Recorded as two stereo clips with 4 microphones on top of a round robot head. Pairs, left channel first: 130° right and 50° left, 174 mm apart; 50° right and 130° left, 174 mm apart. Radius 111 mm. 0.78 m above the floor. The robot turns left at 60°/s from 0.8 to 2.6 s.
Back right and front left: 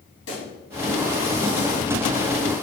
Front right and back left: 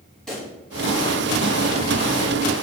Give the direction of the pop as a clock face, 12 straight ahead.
5 o'clock.